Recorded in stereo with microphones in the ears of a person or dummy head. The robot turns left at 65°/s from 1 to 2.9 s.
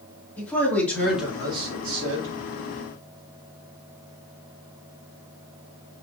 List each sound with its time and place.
0.4 s a man speaking: 10° left, 3 m; by 2.4 s 80° right, 3 m